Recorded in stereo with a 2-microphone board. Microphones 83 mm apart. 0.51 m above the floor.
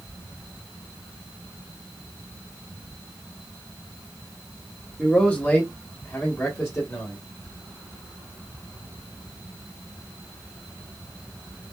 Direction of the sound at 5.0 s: 10° left (ahead or behind).